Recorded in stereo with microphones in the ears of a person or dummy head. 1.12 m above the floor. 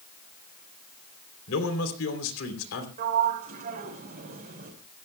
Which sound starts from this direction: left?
A man speaking, at 1.5 s.